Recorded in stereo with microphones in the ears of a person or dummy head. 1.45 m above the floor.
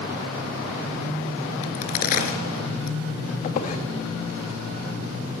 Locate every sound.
1.6 s a crack: 50° left (ahead or behind), 3 m
3.4 s a squeak: 45° left (ahead or behind), 2.0 m